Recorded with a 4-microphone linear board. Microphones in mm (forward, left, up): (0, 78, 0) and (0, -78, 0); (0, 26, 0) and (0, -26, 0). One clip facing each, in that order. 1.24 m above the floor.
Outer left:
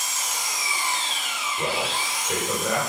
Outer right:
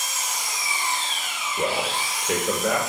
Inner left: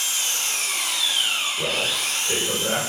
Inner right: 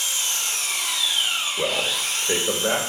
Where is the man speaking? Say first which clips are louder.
Outer right 2 dB, inner right 1 dB; 75° right (ahead or behind), 1.1 m.